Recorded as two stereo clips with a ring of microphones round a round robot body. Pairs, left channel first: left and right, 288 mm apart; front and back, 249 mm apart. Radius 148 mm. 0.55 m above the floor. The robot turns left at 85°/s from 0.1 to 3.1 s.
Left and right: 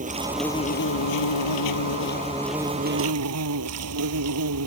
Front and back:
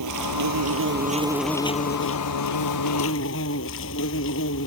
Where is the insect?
155° right; by 4.7 s 50° right.